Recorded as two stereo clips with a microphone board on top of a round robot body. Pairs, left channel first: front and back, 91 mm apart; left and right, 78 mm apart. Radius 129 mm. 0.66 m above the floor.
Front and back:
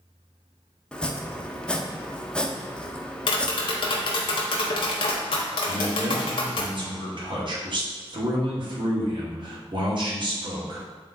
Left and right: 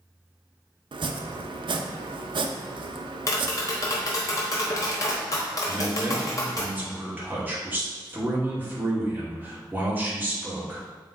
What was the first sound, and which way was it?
Chopping, 80° right.